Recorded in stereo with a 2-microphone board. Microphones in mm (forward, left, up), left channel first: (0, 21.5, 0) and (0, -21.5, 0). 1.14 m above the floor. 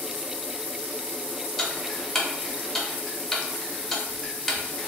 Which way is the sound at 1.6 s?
5° left (ahead or behind).